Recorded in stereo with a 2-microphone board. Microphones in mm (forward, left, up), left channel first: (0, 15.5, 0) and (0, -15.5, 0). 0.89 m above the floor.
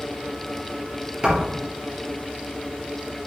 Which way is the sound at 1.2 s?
30° right (ahead or behind).